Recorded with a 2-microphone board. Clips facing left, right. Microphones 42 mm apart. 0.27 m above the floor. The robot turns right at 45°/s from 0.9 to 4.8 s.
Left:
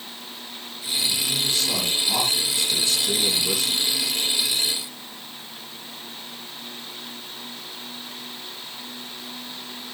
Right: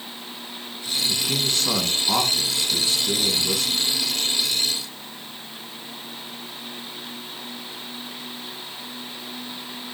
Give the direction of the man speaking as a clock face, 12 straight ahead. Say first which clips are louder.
Right 2 dB; 3 o'clock.